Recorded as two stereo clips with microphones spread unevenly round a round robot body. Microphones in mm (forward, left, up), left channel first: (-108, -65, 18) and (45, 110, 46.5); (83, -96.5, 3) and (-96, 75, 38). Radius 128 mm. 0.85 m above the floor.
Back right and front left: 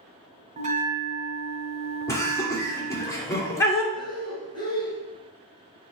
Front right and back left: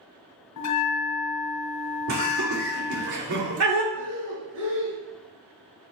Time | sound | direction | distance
0.6 | a bell | 15° right | 1.4 m
2.1 | laughter | 155° left | 2.5 m
3.9 | breathing | 155° left | 3 m